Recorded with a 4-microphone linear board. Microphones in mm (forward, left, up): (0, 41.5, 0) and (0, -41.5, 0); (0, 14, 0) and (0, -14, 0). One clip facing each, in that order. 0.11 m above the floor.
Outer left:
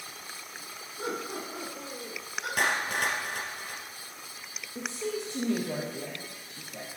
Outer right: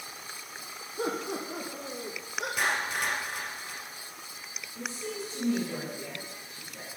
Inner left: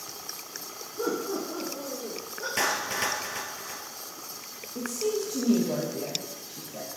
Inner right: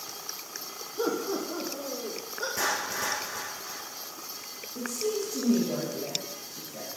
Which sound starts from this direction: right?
Laughter, at 1.0 s.